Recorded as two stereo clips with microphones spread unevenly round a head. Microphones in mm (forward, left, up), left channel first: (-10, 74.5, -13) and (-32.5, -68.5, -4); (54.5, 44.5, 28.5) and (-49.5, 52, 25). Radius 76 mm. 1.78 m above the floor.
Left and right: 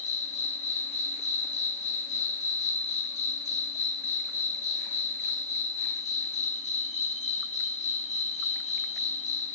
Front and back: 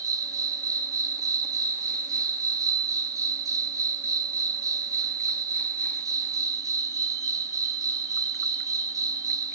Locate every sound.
0.0 s an insect: 120° left, 2 m